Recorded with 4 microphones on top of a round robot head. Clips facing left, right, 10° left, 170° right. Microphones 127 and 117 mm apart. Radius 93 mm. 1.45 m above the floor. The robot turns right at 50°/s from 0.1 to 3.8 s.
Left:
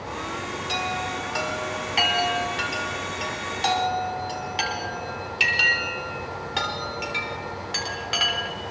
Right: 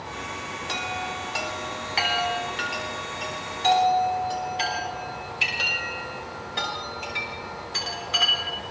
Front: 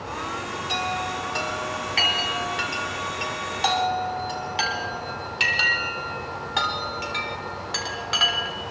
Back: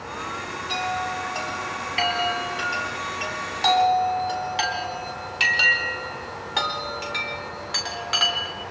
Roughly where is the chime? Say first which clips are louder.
Left 3 dB, back 2 dB; ahead right.